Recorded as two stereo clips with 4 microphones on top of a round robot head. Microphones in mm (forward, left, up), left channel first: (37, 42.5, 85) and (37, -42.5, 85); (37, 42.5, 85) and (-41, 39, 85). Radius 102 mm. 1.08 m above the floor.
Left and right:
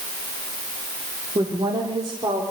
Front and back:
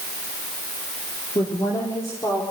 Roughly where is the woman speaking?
Ahead right.